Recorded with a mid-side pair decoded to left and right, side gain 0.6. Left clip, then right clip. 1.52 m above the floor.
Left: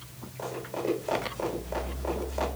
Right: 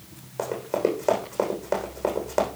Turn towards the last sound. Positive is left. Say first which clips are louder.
# right 8 dB
turn(degrees=-60)